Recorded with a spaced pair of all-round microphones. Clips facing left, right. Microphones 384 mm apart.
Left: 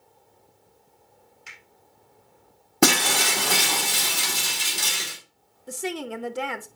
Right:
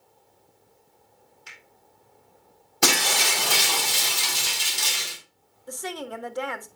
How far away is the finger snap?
About 4 m.